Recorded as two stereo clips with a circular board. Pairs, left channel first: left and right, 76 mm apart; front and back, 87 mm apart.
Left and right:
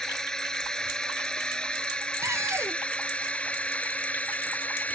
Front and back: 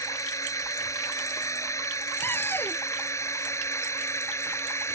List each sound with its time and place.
0.0 s a drone: 10° left; by 5.0 s 30° left
2.2 s a cupboard door: 55° right